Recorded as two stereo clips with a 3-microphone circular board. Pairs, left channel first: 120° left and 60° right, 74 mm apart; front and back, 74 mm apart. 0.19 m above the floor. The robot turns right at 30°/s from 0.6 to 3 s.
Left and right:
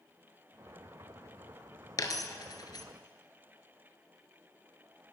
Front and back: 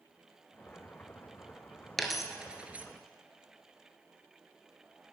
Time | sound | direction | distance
2.0 | a dropped coin | 90° left | 0.8 m